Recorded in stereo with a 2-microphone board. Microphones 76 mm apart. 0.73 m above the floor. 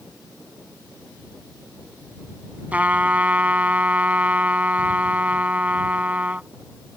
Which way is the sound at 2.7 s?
20° right (ahead or behind).